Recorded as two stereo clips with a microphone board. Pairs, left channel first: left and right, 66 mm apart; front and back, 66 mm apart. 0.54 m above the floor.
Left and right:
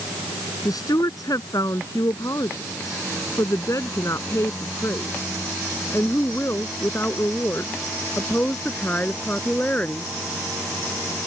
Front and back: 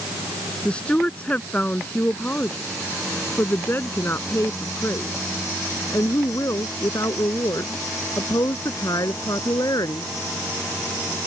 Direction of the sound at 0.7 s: 75° left.